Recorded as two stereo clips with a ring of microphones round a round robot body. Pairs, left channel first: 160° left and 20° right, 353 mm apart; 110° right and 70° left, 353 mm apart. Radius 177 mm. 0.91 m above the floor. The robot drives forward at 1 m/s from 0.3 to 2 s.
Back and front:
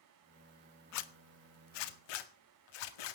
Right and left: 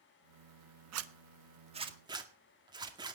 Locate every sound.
0.9 s a zipper: 115° left, 1.2 m; by 3.2 s 145° left, 1.9 m